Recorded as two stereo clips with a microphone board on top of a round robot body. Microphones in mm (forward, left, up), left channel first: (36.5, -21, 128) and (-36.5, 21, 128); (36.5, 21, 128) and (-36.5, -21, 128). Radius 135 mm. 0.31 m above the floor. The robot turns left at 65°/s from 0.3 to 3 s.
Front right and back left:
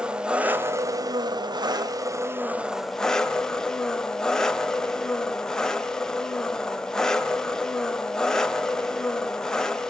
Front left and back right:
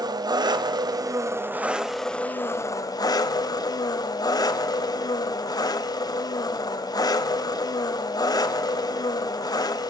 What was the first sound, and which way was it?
An engine running, 135° right.